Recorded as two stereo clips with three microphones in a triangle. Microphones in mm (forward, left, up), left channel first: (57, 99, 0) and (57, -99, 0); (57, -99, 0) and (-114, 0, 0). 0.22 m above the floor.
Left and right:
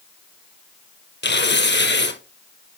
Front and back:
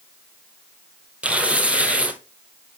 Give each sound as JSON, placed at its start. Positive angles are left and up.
{"t": 1.2, "sound": "tearing paper", "azimuth_deg": 65, "distance_m": 1.5}